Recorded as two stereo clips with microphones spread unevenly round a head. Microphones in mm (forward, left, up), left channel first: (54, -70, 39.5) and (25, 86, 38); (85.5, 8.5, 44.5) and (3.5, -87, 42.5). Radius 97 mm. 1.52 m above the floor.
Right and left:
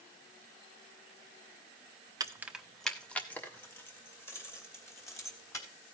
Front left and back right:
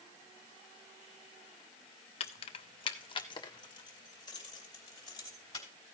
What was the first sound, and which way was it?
Keys jangling, 40° left.